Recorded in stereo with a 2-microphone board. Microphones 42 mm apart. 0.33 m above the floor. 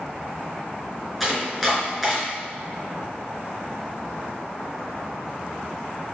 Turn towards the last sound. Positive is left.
turn(degrees=5)  # may be behind; listen again after turning